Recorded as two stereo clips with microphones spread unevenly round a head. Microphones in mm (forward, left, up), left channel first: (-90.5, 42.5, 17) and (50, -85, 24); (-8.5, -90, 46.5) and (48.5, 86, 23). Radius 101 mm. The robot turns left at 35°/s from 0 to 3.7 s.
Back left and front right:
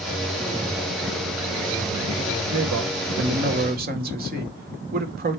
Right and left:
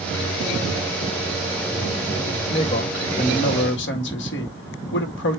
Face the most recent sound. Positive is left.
turn(degrees=-80)